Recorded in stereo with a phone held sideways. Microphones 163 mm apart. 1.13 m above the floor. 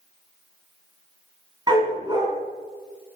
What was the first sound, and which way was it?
A dog barking, 25° right (ahead or behind).